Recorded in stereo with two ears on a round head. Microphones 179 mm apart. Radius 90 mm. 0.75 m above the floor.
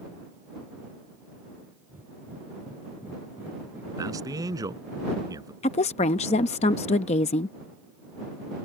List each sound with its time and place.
1.9 s breathing: 10° right (ahead or behind)
4.0 s a man speaking: 20° right (ahead or behind)
5.6 s a woman speaking: 30° left (ahead or behind)